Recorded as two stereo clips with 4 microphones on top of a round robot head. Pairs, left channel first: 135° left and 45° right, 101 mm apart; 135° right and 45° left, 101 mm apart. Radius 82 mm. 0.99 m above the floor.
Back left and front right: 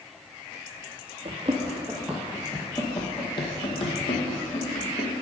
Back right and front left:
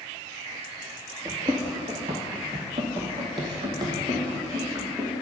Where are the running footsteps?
15° right, 1.3 m; by 5.2 s 110° left, 3 m.